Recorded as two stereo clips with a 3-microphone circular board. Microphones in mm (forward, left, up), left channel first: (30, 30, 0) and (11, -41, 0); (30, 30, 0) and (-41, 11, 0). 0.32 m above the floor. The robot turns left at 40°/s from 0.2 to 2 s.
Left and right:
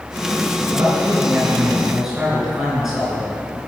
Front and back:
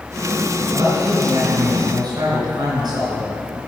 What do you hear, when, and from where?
0.7 s a man speaking: 125° right, 3.5 m; by 3.6 s straight behind, 3.5 m